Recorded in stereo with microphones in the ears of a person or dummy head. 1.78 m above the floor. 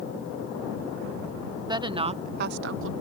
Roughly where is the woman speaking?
Centre.